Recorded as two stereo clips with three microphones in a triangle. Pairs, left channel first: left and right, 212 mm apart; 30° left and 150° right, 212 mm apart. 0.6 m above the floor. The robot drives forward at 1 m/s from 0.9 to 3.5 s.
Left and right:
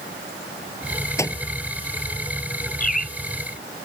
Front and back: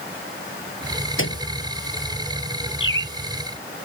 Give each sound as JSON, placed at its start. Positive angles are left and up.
{"t": 1.2, "sound": "a microwave", "azimuth_deg": 15}
{"t": 2.8, "sound": "a bird", "azimuth_deg": 40}